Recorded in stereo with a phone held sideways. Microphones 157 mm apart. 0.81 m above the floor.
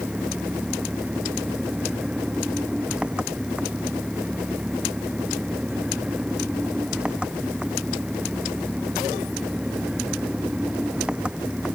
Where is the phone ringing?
I don't hear a phone ringing.